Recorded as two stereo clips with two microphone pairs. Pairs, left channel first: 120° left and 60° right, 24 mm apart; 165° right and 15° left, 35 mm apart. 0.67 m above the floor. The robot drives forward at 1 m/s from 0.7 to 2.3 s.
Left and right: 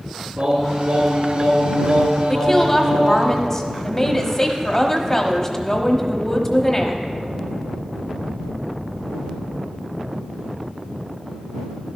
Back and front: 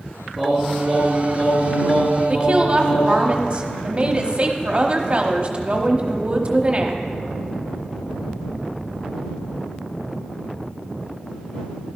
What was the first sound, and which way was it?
Singing, 85° right.